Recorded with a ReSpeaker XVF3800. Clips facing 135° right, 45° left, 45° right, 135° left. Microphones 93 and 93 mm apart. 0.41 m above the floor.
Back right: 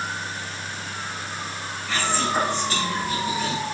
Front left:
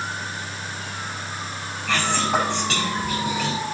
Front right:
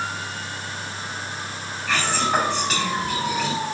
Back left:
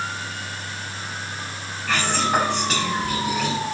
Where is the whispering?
45° left, 5 m.